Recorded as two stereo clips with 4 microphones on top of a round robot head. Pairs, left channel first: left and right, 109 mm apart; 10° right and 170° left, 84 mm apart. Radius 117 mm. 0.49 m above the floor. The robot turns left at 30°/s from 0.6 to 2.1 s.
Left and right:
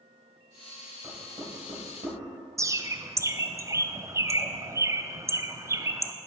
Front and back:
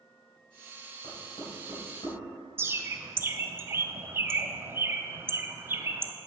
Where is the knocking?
30° right, 2.5 m; by 2.2 s 60° right, 2.5 m.